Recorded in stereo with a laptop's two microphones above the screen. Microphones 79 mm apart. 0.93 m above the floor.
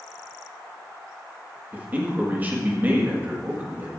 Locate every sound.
1.7 s a man speaking: 25° right (ahead or behind), 1.6 m